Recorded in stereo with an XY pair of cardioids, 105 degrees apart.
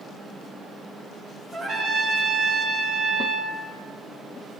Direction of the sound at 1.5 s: 60° right.